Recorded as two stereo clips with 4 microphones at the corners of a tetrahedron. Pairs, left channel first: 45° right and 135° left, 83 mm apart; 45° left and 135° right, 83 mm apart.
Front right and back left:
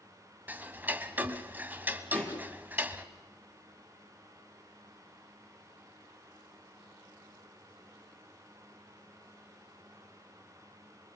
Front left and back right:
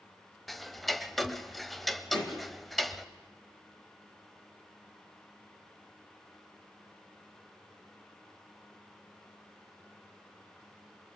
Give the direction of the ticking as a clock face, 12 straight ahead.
8 o'clock.